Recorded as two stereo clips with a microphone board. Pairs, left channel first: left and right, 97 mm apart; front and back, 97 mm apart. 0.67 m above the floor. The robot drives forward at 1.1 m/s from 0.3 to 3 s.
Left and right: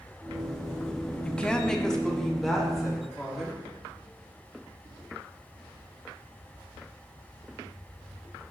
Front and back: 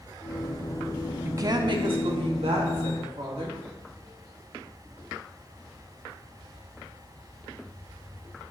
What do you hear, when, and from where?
1.2 s a woman speaking: 150° left, 0.6 m; by 3.6 s 175° left, 2 m